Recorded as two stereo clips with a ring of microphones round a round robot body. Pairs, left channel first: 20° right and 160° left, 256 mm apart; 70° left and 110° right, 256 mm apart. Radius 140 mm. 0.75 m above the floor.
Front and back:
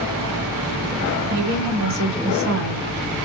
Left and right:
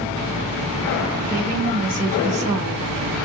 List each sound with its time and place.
1.3 s a woman speaking: 165° right, 3.5 m; by 3.2 s 175° left, 2.5 m